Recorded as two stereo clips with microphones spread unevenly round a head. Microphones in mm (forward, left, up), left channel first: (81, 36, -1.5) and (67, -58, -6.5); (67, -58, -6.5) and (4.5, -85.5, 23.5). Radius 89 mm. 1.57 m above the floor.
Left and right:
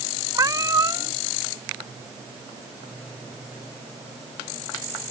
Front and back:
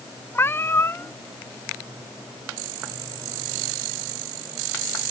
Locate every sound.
0.3 s a cat meowing: 45° right